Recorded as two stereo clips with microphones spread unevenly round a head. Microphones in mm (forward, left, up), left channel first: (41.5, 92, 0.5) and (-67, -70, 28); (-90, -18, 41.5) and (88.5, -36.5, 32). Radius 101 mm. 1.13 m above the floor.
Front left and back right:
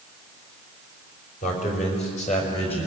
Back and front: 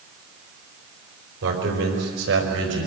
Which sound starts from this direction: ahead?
A man speaking, at 1.4 s.